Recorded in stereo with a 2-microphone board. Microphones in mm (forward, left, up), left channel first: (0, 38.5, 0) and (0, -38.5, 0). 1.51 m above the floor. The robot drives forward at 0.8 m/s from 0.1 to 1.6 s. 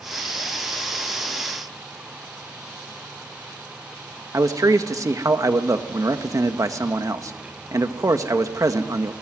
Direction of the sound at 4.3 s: 45° right (ahead or behind).